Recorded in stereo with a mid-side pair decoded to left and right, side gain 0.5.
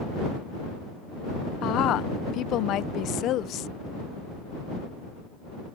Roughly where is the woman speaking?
Left.